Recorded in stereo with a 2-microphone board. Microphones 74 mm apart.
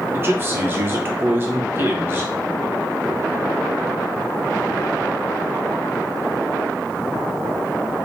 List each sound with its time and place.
0.1 s a man speaking: 30° right (ahead or behind), 1.0 m